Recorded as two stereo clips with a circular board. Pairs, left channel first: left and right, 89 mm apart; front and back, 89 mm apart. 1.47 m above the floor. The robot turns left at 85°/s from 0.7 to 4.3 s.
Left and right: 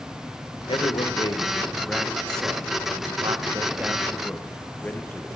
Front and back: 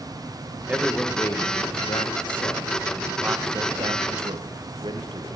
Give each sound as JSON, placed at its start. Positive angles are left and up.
{"t": 0.7, "sound": "a man speaking", "azimuth_deg": 110, "distance_m": 1.1}